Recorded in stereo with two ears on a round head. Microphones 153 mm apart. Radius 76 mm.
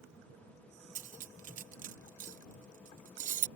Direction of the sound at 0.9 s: 45° right (ahead or behind).